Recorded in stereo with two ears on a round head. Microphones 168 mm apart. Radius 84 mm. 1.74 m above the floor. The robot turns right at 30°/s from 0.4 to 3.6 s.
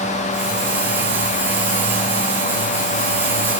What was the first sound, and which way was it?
Only background noise.